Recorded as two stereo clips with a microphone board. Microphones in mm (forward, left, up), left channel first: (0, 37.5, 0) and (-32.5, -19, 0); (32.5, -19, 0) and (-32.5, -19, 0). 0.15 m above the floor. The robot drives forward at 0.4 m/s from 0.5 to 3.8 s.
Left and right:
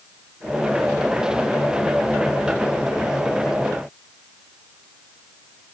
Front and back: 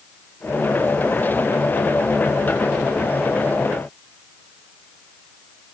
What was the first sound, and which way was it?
Only background noise.